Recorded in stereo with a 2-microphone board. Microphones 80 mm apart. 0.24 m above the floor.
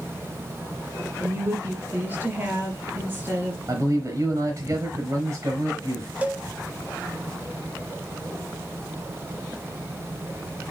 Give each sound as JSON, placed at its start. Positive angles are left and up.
{"t": 1.2, "sound": "a woman speaking", "side_deg": -25, "distance_m": 3.5}
{"t": 3.7, "sound": "a man speaking", "side_deg": -40, "distance_m": 4.5}
{"t": 6.2, "sound": "a cowbell", "side_deg": -20, "distance_m": 0.8}